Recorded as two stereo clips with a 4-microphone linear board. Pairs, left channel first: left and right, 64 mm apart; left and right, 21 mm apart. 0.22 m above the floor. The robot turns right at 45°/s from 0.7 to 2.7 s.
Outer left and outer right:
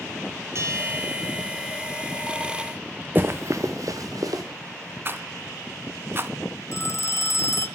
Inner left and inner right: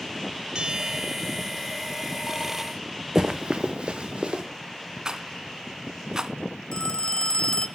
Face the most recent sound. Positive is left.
turn(degrees=50)  # may be behind; listen again after turning